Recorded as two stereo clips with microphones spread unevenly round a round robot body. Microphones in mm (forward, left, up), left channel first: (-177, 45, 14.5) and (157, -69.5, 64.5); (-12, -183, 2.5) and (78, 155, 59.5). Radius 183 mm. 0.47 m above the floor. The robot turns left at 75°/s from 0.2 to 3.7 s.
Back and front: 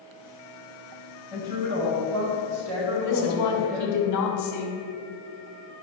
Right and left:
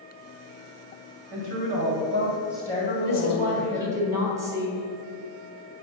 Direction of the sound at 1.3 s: 75° left.